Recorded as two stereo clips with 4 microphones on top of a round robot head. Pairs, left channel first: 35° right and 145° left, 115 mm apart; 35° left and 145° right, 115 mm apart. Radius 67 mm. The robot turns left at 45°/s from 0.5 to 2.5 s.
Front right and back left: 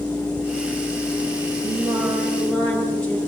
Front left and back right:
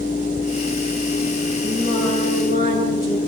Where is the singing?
80° left, 10 m; by 3.2 s 45° left, 10 m.